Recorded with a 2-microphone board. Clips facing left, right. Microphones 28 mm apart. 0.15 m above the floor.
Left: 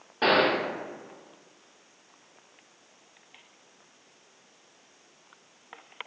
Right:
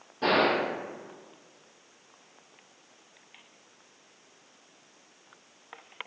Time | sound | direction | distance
0.2 | a gunshot | 45° left (ahead or behind) | 0.8 m